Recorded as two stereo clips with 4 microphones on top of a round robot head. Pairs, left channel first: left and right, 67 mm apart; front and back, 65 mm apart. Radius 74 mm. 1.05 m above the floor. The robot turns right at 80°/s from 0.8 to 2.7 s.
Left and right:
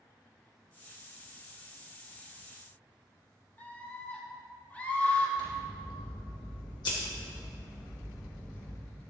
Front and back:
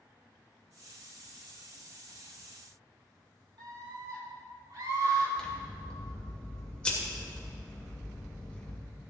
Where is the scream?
155° left, 4 m.